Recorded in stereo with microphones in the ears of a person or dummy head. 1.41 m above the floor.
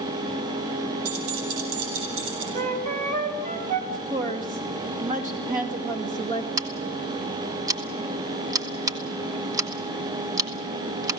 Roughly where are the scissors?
Centre.